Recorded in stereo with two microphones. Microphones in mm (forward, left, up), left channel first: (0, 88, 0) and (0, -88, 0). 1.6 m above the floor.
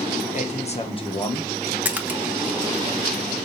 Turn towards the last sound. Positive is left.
turn(degrees=-10)  # may be behind; listen again after turning